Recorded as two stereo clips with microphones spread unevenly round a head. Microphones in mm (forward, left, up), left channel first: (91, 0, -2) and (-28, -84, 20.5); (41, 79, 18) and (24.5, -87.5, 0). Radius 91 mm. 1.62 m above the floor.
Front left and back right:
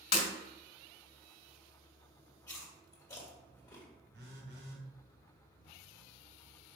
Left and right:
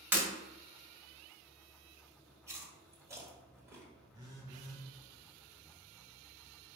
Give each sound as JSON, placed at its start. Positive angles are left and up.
{"t": 0.1, "sound": "breaking glass", "azimuth_deg": -15, "distance_m": 1.8}
{"t": 2.5, "sound": "chewing", "azimuth_deg": -30, "distance_m": 1.5}
{"t": 4.1, "sound": "a phone buzzing", "azimuth_deg": -170, "distance_m": 0.8}